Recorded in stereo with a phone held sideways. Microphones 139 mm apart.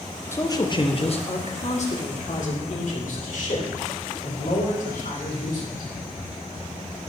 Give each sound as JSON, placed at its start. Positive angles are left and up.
{"t": 0.3, "sound": "a man speaking", "side_deg": 20, "distance_m": 0.8}